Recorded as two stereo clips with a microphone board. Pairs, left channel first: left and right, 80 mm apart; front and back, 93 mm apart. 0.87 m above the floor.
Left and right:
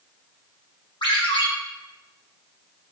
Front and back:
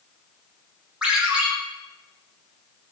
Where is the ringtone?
100° left, 0.8 m.